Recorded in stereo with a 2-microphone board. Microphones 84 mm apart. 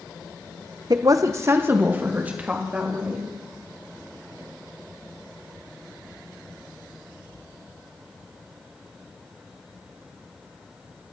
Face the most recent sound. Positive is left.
turn(degrees=-15)  # may be behind; listen again after turning